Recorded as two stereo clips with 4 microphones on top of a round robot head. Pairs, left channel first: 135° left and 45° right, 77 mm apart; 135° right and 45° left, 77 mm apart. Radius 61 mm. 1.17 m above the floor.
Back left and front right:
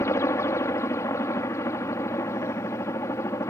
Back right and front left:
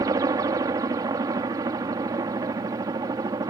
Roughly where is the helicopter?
Left.